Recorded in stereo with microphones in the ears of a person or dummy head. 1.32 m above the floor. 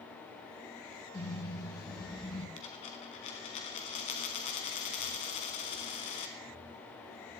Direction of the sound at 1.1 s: 20° left (ahead or behind).